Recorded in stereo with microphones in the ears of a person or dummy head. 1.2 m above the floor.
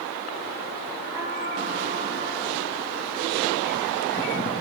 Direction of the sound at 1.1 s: 15° right (ahead or behind).